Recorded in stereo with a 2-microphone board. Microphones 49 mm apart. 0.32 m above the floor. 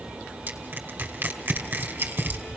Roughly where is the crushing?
Right.